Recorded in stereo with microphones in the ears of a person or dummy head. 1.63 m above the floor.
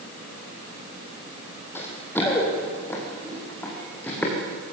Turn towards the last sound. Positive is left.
turn(degrees=15)  # may be behind; listen again after turning